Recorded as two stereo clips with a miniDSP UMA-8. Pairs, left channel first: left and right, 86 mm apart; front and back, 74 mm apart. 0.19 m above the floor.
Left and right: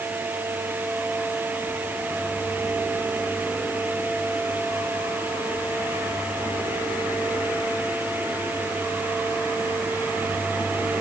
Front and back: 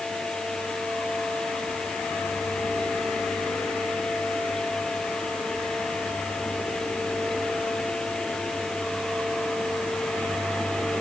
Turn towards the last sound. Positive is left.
No sound to turn to.